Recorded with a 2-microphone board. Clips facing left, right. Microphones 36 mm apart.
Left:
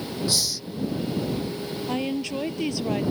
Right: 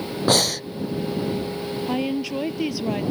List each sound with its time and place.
0.3 s breathing: 55° right (ahead or behind)
1.9 s a woman speaking: 5° right (ahead or behind)